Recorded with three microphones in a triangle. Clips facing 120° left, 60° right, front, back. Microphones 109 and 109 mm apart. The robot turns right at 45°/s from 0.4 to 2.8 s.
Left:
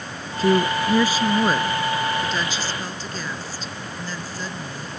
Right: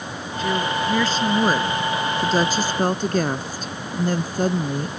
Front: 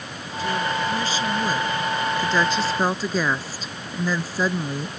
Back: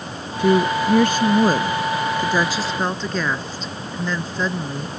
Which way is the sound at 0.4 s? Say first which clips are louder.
Left 4 dB, back 7 dB; 170° left.